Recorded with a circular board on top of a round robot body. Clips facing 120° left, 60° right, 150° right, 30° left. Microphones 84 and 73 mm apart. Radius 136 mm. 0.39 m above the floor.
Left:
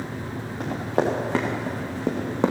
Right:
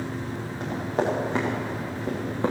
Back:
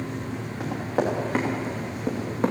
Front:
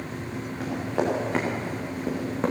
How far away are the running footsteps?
About 4 m.